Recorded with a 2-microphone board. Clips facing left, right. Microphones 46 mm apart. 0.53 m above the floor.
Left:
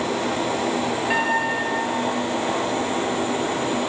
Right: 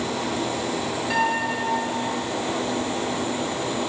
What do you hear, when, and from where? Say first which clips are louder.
1.1 s a piano: even; 25° left (ahead or behind), 5 m